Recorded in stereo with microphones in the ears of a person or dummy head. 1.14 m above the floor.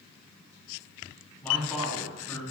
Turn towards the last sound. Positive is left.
turn(degrees=5)  # may be behind; listen again after turning